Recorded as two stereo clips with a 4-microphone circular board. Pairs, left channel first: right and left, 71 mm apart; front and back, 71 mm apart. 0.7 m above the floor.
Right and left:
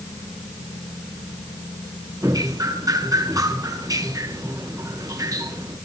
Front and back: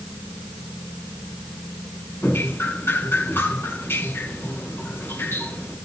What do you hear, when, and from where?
2.2 s dripping: 60° left, 8 m